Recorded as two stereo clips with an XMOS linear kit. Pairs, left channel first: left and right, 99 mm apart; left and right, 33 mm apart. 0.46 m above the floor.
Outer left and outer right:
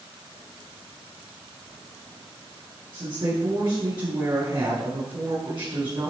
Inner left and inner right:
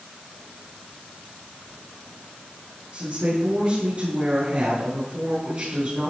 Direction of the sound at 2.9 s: 45° right (ahead or behind).